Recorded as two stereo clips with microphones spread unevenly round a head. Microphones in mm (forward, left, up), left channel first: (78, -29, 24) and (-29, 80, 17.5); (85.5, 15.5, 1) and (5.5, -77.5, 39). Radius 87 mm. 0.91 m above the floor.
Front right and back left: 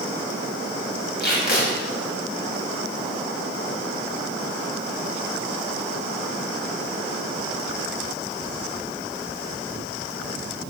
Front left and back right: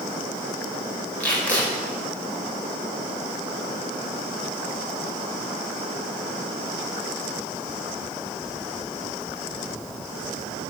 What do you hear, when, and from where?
1.2 s tape being pulled: 30° right, 4.5 m